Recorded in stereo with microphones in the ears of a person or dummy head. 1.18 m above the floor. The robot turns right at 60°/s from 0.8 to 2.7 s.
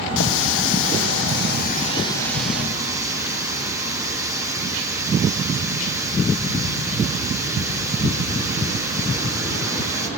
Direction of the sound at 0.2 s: 80° left.